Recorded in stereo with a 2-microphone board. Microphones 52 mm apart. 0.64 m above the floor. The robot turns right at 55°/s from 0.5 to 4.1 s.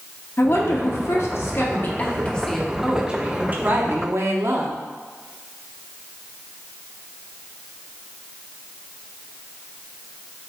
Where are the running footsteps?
I don't hear running footsteps.